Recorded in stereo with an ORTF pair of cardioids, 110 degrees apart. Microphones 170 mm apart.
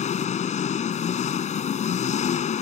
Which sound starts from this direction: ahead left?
An engine running, at 0.0 s.